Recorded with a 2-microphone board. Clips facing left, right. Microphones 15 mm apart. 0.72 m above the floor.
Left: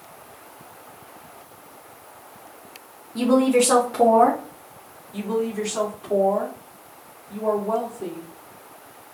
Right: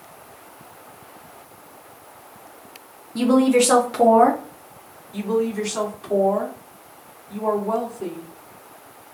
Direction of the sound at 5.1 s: 60° right (ahead or behind).